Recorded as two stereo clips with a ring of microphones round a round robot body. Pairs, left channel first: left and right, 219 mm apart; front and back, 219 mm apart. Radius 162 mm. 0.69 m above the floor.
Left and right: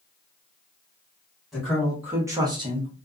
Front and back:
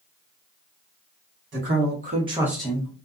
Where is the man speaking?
Straight behind, 1.5 m; by 3.0 s 40° right, 1.0 m.